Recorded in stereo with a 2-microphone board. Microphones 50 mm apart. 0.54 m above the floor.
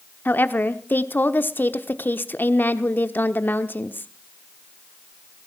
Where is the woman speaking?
40° left (ahead or behind), 1.0 m.